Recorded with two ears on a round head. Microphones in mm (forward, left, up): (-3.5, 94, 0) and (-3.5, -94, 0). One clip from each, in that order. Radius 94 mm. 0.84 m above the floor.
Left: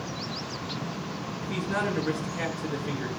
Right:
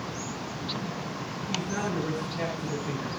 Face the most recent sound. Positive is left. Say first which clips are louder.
# left 3 dB
turn(degrees=35)  # may be behind; listen again after turning